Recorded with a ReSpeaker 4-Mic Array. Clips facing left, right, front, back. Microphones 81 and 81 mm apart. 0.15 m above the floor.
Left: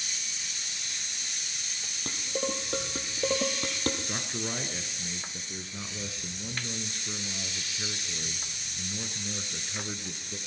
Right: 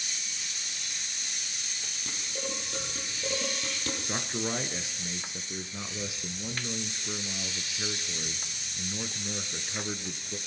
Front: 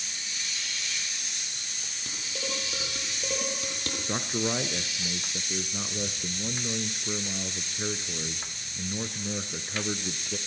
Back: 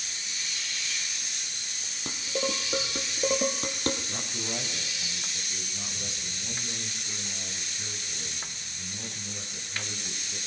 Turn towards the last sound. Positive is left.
turn(degrees=-20)